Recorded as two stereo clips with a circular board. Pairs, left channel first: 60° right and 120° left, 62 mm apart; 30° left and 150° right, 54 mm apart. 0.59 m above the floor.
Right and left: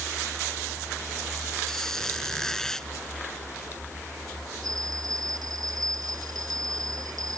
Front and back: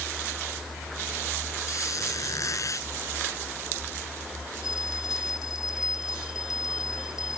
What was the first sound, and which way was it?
A squeak, 25° left.